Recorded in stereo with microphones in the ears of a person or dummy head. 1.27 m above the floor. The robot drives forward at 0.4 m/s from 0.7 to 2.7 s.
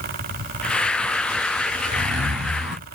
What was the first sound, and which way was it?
A zipper, 35° right (ahead or behind).